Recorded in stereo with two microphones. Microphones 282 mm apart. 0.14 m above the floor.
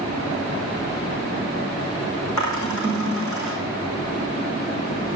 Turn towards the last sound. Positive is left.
turn(degrees=80)